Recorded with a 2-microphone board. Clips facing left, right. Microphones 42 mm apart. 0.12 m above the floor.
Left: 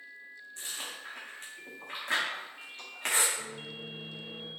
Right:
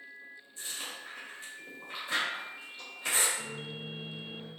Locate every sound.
0.6 s chewing: 55° left (ahead or behind), 1.3 m
3.4 s a microwave: 50° left (ahead or behind), 1.9 m